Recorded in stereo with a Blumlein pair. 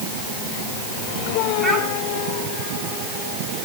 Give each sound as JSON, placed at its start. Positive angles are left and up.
{"t": 1.6, "sound": "a child speaking", "azimuth_deg": -10, "distance_m": 8.5}